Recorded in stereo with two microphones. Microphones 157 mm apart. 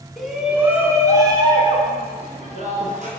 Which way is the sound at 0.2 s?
Centre (ahead or behind).